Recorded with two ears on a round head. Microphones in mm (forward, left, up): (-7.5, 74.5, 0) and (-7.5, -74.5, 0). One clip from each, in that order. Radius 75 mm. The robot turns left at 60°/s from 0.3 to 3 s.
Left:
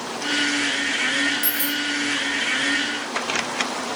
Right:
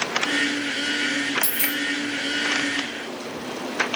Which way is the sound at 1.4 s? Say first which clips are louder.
Left 1 dB; 10° right (ahead or behind).